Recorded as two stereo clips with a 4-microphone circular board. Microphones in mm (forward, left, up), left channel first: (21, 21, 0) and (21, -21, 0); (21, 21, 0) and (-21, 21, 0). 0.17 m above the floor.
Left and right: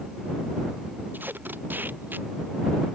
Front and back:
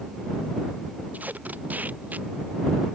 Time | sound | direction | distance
1.1 | tape being pulled | 130° right | ?